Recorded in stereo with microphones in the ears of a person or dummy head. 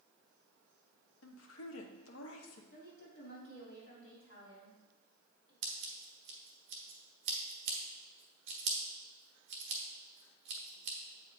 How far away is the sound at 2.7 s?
About 3 m.